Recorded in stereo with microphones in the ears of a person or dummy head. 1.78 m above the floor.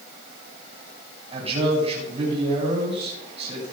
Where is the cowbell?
I don't hear a cowbell.